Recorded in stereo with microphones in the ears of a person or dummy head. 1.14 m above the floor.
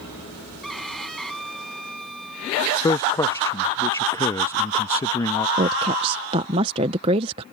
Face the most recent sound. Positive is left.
turn(degrees=-20)  # may be behind; listen again after turning